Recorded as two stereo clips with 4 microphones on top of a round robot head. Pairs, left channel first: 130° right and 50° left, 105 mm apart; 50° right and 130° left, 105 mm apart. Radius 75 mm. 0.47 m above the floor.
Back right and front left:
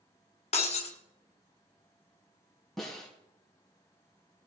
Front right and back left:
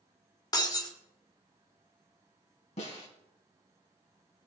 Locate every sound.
0.5 s breaking glass: 105° right, 2 m
2.8 s a snare drum: 45° right, 3.5 m